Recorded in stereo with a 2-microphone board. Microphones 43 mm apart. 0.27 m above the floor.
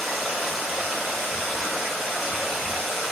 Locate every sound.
0.0 s running water: centre (ahead or behind), 0.8 m